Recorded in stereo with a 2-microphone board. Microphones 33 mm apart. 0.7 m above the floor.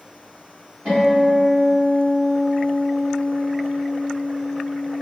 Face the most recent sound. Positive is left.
turn(degrees=-60)  # may be behind; listen again after turning